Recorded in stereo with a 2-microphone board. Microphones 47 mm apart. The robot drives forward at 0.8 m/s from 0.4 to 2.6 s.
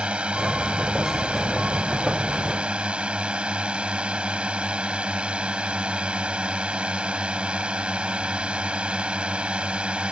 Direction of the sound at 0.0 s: 25° right (ahead or behind).